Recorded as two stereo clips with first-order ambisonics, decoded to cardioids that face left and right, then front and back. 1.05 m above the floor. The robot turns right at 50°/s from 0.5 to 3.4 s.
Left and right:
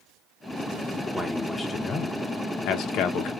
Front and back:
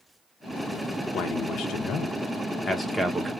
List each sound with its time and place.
1.1 s a man speaking: 5° right, 0.7 m; by 3.3 s 100° left, 0.7 m